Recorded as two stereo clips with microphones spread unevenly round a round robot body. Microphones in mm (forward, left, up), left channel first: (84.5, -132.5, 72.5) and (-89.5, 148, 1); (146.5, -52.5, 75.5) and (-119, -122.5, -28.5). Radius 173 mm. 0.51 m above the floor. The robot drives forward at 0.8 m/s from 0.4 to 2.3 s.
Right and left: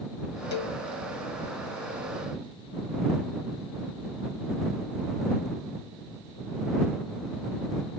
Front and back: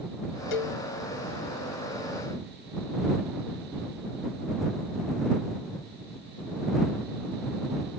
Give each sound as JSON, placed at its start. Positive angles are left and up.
{"t": 0.5, "sound": "a cowbell", "azimuth_deg": 5}